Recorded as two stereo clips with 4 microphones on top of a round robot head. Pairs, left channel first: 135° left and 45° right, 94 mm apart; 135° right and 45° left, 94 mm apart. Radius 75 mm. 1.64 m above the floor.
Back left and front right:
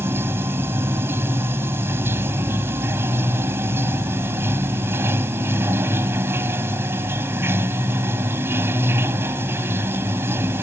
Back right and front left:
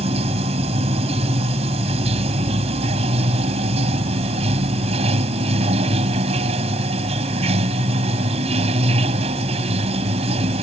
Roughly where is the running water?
Ahead left.